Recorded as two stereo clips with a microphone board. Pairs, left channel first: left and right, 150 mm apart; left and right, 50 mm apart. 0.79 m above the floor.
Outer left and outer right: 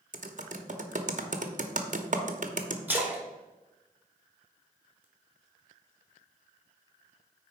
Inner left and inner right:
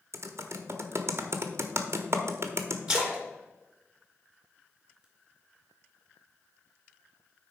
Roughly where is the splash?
Centre.